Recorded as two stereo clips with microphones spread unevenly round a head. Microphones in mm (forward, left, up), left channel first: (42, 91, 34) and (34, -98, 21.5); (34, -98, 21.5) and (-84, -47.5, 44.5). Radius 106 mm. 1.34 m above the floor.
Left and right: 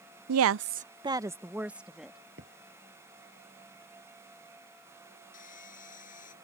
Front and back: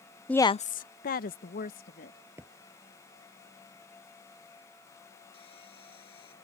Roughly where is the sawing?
Ahead left.